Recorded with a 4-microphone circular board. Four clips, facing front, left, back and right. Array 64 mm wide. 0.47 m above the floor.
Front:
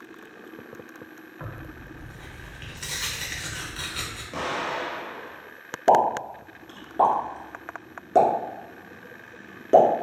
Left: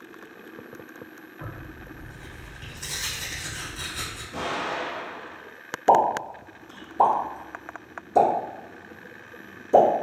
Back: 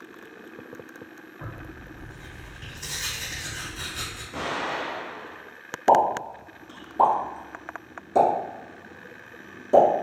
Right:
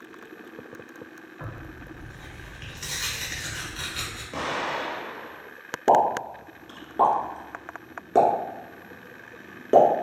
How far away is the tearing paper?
About 0.7 m.